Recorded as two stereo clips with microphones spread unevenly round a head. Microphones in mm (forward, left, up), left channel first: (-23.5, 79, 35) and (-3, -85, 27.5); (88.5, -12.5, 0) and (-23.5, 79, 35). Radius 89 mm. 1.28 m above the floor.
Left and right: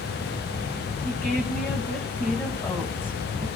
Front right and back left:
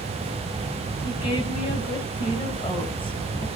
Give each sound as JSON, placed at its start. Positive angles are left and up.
{"t": 1.0, "sound": "a woman speaking", "azimuth_deg": 15, "distance_m": 6.5}